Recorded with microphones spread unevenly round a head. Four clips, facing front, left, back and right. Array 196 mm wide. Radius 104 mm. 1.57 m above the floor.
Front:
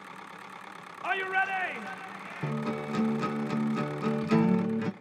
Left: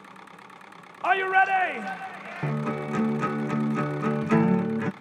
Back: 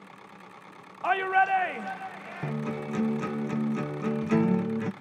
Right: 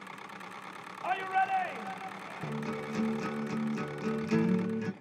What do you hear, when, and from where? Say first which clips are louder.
1.0 s a shout: left 8 dB, back 6 dB; 90° left, 0.6 m
2.4 s a guitar: left 8 dB, even; 80° left, 0.8 m